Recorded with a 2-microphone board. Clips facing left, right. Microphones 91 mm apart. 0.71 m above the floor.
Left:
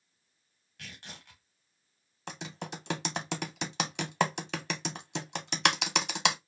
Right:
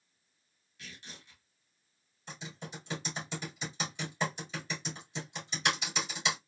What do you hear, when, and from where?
0.8 s tearing paper: 60° left (ahead or behind), 1.3 m
2.3 s typing on a keyboard: 75° left (ahead or behind), 0.7 m